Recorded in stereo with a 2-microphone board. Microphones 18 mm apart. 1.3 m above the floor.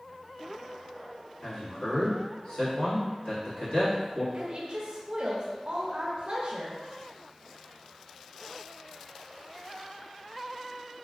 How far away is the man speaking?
About 1.6 m.